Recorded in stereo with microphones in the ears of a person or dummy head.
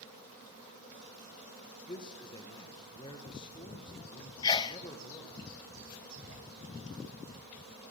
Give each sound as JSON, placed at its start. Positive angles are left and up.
{"t": 1.9, "sound": "a man speaking", "side_deg": 30, "distance_m": 1.6}
{"t": 4.4, "sound": "a sneeze", "side_deg": 25, "distance_m": 0.6}